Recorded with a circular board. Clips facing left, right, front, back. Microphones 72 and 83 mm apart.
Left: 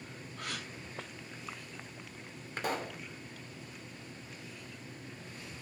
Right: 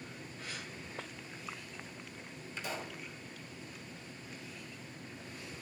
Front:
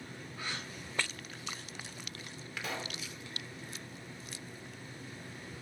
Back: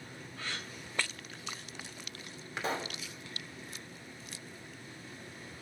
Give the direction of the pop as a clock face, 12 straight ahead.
8 o'clock.